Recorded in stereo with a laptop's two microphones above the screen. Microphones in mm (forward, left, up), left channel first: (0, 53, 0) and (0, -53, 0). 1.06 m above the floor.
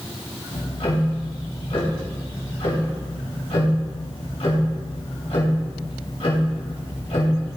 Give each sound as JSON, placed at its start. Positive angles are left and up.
{"t": 0.5, "sound": "ticking", "side_deg": 70, "distance_m": 1.8}